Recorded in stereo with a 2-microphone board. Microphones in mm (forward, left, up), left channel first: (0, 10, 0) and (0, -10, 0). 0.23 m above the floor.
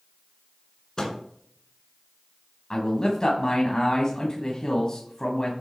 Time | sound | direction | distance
1.0 | a microwave | 30° left (ahead or behind) | 1.9 m
2.7 | a man speaking | 35° left (ahead or behind) | 1.5 m